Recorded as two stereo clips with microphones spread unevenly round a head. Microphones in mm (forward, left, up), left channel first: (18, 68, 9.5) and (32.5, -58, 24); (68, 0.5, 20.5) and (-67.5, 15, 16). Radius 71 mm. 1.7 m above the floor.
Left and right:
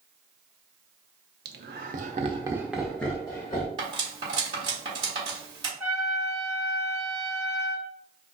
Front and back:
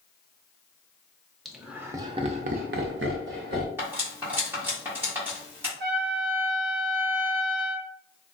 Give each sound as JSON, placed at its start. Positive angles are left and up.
{"t": 1.4, "sound": "laughter", "azimuth_deg": -95, "distance_m": 0.6}
{"t": 3.8, "sound": "cutlery clinking", "azimuth_deg": -115, "distance_m": 1.4}
{"t": 5.8, "sound": "a trumpet", "azimuth_deg": -170, "distance_m": 0.9}